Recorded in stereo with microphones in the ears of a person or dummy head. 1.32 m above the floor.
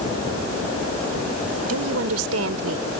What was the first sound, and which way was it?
A woman speaking, 85° right.